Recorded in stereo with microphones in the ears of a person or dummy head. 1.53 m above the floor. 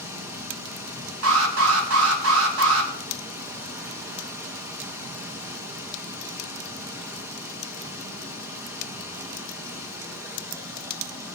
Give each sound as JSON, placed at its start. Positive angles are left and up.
{"t": 0.0, "sound": "running water", "side_deg": -15, "distance_m": 1.8}
{"t": 1.2, "sound": "an alarm", "side_deg": -75, "distance_m": 3.5}